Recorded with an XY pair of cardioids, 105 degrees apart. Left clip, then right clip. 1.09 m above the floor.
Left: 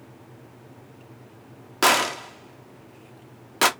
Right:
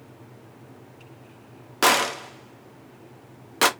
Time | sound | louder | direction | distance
1.8 | a gunshot | even | straight ahead | 0.5 m